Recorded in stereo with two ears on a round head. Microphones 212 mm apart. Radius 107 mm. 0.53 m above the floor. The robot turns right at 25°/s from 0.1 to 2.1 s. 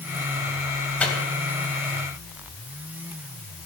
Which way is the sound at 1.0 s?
5° left (ahead or behind).